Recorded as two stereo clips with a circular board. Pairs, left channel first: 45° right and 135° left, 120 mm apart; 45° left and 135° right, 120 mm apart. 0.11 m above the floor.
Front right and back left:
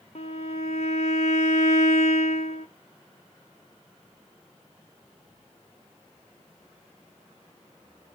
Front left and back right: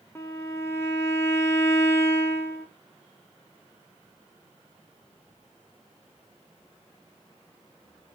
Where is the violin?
25° right, 1.7 m.